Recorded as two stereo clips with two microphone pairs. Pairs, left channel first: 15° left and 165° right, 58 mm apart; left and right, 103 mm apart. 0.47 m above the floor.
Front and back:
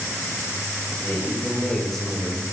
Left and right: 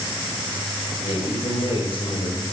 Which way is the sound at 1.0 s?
75° left.